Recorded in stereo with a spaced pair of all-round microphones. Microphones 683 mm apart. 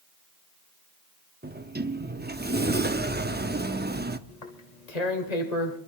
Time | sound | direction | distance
1.4 | a sliding door | 15° right (ahead or behind) | 0.6 m
4.3 | tearing paper | 70° left (ahead or behind) | 1.6 m